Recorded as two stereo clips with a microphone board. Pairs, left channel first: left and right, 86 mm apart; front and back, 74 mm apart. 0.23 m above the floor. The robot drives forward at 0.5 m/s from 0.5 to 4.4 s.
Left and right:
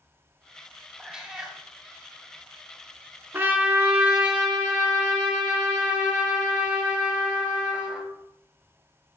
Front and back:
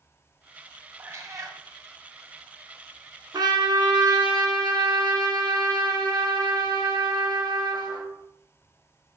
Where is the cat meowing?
165° right, 0.6 m; by 1.6 s 170° right, 0.8 m.